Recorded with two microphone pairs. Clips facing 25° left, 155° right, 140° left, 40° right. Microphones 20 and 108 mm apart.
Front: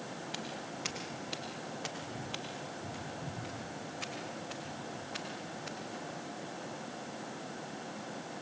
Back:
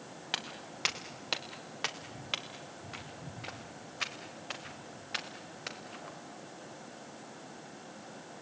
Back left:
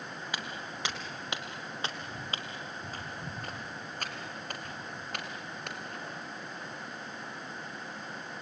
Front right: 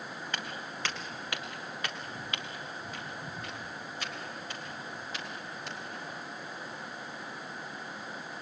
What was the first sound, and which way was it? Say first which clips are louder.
Footsteps: back 6 dB, even; 140° right.